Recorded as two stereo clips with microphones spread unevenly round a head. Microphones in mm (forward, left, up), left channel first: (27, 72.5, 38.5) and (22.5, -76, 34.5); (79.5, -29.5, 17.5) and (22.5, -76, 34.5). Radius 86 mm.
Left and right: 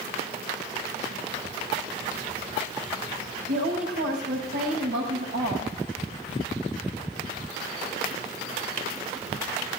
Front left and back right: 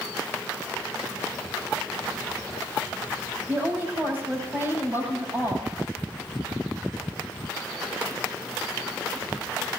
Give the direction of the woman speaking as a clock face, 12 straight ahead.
3 o'clock.